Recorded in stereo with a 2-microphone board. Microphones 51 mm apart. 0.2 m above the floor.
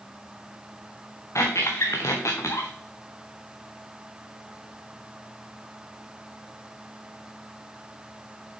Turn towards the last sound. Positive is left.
turn(degrees=85)